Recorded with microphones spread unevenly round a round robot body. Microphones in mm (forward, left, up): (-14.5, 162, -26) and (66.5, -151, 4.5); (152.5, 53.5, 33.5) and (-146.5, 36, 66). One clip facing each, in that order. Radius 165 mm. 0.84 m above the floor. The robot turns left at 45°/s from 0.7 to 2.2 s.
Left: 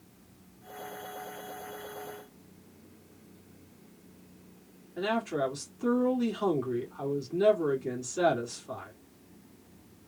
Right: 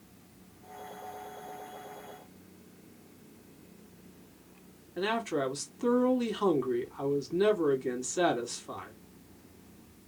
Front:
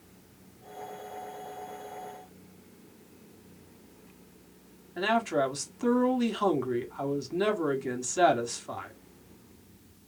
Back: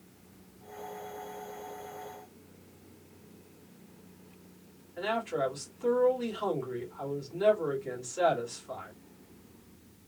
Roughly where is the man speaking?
Ahead.